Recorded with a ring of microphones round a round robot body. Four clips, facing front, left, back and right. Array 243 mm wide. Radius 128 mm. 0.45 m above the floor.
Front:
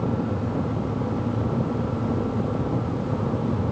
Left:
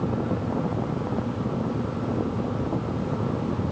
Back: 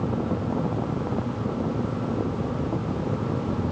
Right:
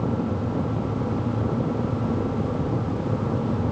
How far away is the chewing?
I don't hear chewing.